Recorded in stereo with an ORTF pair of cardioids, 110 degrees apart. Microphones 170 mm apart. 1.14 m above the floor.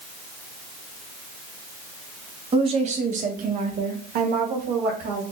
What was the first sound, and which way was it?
A woman speaking, 35° right.